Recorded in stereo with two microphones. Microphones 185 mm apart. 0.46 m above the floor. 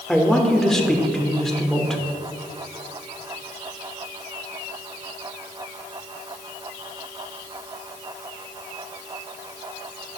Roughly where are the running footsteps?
No running footsteps in this recording.